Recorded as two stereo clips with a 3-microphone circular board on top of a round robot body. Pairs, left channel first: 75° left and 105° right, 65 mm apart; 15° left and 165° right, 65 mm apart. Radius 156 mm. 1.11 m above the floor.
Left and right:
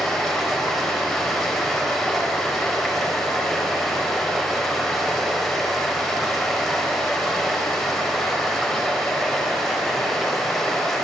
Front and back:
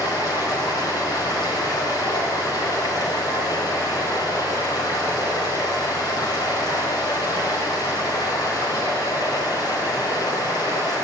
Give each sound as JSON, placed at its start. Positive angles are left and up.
{"t": 0.0, "sound": "running water", "azimuth_deg": -15, "distance_m": 3.5}